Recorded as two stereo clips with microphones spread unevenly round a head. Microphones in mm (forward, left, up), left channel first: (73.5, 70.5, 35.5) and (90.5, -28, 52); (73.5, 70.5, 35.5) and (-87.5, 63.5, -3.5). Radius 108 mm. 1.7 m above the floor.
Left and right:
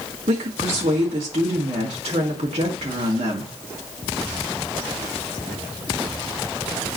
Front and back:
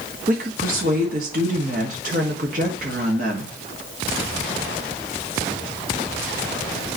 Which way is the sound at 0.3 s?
125° right.